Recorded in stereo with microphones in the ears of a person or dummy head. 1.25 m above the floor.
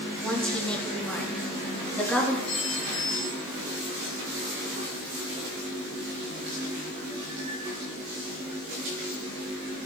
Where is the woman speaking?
5° left (ahead or behind), 3 m.